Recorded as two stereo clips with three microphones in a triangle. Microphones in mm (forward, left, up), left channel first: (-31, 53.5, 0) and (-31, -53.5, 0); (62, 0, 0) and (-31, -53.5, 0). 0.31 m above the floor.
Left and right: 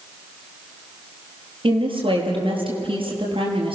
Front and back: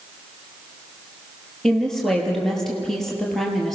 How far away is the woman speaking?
About 5.5 m.